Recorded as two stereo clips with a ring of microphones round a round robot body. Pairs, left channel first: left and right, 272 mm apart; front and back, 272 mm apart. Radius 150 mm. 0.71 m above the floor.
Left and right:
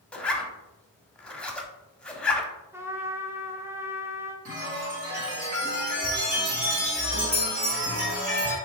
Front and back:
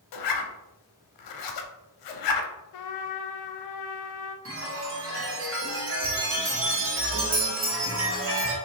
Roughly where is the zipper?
Ahead.